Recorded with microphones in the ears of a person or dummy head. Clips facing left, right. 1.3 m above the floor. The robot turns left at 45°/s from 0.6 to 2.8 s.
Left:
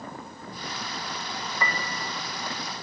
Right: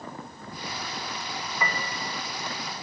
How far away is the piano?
About 1.5 m.